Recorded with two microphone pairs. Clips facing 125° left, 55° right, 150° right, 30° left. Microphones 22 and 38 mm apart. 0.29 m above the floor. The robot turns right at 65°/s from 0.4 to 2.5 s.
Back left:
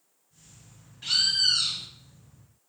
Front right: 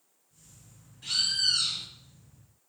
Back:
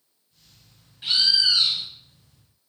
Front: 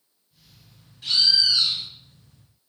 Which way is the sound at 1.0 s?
155° left.